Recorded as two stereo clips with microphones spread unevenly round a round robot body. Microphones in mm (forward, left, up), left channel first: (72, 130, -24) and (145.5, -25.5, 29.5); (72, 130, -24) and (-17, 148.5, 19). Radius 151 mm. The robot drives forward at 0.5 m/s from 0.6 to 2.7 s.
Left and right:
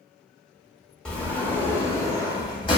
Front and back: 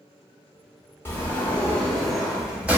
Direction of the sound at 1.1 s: 40° left.